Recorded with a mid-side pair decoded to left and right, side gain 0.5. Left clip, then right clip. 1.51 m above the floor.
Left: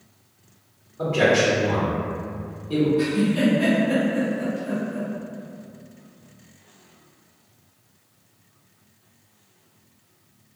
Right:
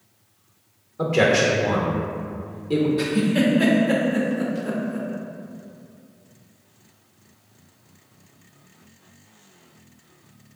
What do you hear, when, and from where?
1.0 s a man speaking: 45° right, 0.8 m
3.0 s a giggle: 65° right, 0.6 m